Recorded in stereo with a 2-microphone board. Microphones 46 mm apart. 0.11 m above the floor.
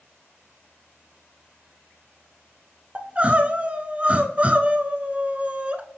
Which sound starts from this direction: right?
Crying, at 3.0 s.